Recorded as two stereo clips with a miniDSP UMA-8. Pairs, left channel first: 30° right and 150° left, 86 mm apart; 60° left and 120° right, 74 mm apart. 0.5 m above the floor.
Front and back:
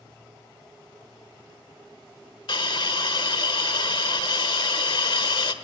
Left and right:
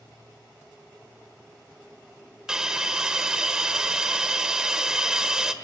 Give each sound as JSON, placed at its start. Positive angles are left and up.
{"t": 2.5, "sound": "a hiss", "azimuth_deg": -40, "distance_m": 1.3}